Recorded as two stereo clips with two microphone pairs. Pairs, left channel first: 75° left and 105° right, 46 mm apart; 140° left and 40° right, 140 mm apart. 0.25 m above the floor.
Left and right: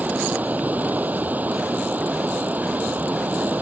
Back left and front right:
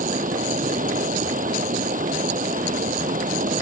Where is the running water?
50° right.